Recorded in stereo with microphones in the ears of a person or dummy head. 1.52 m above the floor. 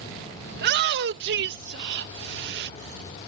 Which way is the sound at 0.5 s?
60° right (ahead or behind).